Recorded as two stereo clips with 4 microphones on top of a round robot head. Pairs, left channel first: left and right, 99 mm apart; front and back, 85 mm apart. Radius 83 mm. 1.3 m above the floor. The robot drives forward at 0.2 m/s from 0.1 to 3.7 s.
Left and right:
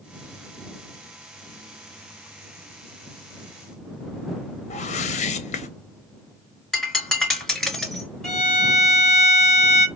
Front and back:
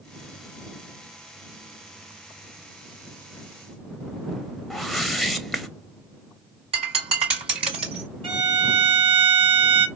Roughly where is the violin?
Behind.